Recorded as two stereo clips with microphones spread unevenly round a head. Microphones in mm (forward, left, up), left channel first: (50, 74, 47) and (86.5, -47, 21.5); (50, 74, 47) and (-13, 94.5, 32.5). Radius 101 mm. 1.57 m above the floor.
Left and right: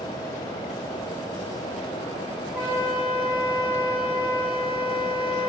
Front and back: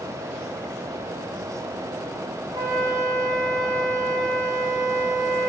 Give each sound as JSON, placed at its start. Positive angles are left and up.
{"t": 2.5, "sound": "a flute", "azimuth_deg": -155, "distance_m": 0.6}